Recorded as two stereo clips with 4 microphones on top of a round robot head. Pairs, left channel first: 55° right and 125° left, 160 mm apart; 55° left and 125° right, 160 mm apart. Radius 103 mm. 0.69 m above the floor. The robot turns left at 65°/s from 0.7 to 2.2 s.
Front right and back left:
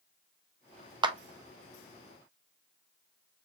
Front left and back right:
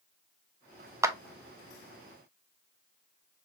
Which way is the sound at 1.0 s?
170° left.